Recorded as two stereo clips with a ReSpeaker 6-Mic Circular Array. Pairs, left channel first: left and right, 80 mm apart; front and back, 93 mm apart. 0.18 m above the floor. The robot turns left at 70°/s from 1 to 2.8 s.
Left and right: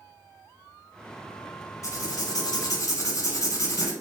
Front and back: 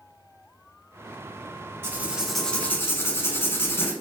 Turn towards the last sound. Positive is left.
turn(degrees=55)